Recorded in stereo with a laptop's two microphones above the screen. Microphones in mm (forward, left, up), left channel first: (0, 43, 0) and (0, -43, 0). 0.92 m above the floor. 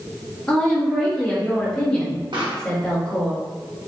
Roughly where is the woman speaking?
Centre.